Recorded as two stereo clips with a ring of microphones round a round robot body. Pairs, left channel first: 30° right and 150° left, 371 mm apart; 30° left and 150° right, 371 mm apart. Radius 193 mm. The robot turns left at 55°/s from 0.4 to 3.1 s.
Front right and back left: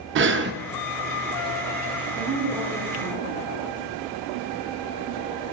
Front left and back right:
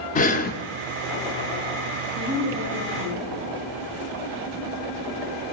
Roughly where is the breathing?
Left.